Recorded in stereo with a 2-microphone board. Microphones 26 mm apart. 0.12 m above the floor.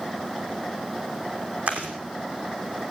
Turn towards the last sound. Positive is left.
turn(degrees=-80)